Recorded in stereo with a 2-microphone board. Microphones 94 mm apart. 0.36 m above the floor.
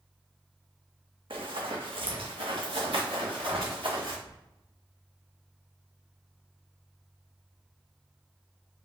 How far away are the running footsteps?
About 1.0 m.